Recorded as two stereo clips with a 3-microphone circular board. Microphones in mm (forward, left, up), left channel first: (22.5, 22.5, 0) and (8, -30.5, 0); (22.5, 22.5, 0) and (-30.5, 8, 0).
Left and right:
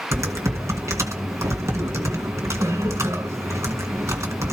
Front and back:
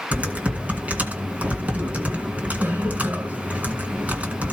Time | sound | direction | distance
0.1 | typing on a keyboard | 105° right | 2.5 m